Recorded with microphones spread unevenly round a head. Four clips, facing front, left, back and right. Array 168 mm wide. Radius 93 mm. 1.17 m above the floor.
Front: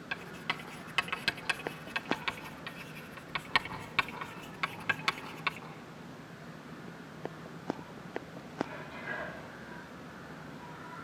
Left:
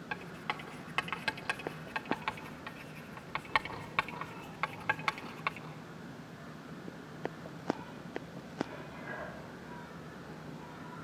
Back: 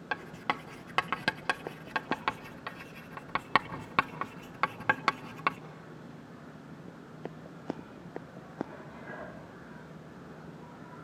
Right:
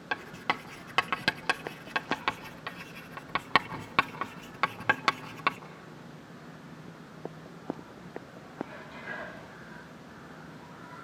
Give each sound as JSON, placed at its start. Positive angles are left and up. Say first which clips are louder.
{"t": 0.1, "sound": "writing", "louder": "right 8 dB, back 6 dB", "azimuth_deg": -115, "distance_m": 1.3}